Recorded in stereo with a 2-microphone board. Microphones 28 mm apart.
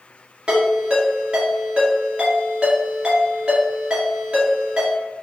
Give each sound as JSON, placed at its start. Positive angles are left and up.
{"t": 0.5, "sound": "a ringtone", "side_deg": -35, "distance_m": 1.9}